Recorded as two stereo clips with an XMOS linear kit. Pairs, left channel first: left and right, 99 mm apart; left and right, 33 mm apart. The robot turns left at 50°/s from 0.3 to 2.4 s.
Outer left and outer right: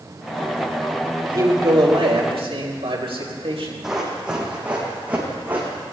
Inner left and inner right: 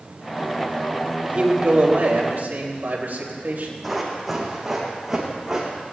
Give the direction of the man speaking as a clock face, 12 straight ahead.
1 o'clock.